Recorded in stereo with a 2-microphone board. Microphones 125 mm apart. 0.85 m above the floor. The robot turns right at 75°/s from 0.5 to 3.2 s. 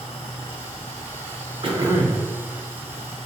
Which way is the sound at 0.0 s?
55° left.